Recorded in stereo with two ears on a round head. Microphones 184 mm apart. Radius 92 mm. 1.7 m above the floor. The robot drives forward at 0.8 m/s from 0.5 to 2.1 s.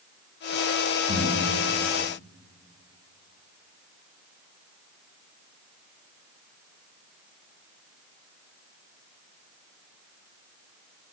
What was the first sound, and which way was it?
Breathing, 55° right (ahead or behind).